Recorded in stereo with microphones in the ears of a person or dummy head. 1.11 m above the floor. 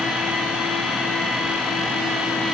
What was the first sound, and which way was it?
Only background noise.